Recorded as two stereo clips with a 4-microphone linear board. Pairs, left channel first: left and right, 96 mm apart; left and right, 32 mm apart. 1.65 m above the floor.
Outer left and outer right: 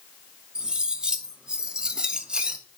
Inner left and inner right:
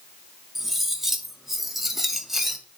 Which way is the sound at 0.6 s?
10° right (ahead or behind).